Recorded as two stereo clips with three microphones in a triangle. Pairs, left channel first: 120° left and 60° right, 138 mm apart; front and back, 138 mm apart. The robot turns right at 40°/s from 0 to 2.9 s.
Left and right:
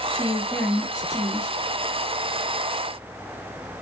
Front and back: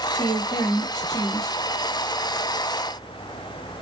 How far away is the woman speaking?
About 1.2 m.